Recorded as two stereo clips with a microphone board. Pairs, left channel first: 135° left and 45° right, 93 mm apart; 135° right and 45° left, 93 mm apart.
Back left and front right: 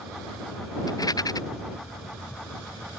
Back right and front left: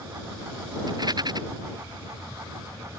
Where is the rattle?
90° left.